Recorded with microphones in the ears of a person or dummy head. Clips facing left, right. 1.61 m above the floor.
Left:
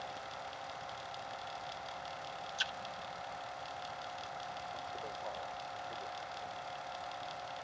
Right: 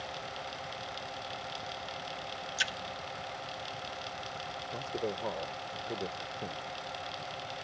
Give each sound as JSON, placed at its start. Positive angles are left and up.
{"t": 2.6, "sound": "a splash", "side_deg": -25}
{"t": 4.7, "sound": "a man speaking", "side_deg": -65}